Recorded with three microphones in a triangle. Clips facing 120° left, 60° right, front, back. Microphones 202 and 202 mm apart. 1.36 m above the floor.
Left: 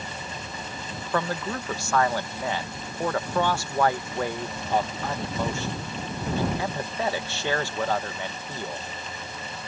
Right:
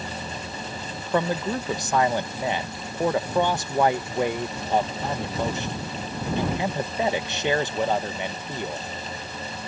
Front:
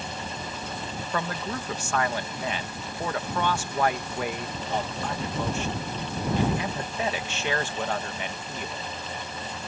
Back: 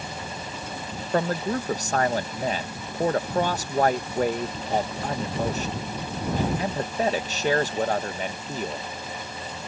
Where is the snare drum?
I don't hear a snare drum.